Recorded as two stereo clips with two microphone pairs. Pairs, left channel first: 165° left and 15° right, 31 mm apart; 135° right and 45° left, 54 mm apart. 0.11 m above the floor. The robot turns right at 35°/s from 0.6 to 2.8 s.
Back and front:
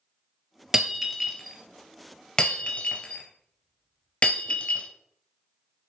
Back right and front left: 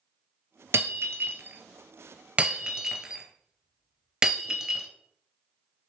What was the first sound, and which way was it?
Breaking glass, 50° left.